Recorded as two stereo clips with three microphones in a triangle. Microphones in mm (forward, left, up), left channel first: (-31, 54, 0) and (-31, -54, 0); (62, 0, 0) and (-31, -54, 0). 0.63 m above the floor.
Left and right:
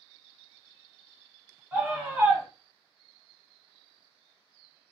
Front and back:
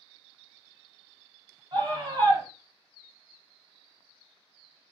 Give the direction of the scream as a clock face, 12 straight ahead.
5 o'clock.